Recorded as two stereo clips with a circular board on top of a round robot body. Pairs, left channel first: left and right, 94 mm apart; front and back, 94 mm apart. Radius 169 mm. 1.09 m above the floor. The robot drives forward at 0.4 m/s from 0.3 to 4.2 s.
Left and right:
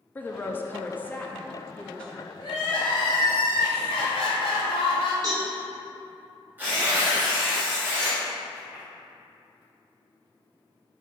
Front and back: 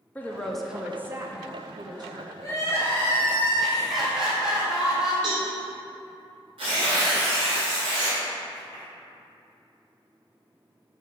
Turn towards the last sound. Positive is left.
turn(degrees=-160)